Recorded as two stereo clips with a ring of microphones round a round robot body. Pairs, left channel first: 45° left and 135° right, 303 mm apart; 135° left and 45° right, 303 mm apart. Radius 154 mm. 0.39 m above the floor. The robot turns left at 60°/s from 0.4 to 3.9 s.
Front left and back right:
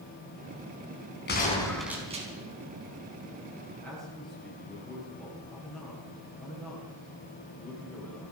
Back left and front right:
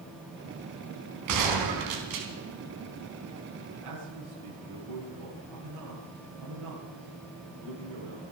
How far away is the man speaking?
About 9.5 m.